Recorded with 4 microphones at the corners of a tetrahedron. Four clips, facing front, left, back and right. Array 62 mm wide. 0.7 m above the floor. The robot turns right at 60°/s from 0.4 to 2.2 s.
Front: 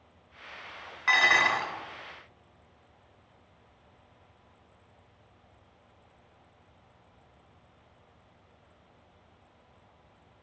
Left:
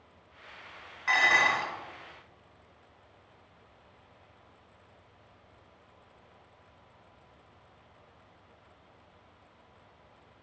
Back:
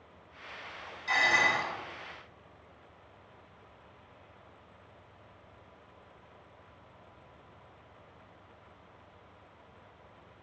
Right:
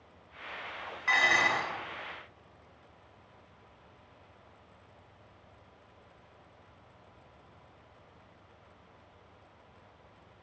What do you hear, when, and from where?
1.1 s dishes clattering: 5° left, 1.9 m; by 1.7 s 45° left, 1.9 m